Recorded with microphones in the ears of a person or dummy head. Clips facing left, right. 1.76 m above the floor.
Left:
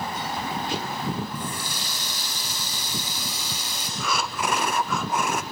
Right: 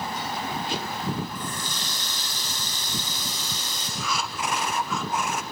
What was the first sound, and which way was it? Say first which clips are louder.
A running tap: left 1 dB; 10° left (ahead or behind).